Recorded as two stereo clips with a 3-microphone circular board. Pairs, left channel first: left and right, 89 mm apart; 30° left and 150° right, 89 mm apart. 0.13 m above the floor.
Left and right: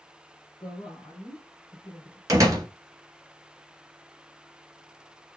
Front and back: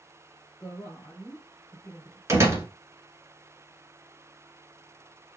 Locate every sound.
0.6 s a woman speaking: 105° left, 2.5 m
2.3 s a door slam: 110° right, 1.5 m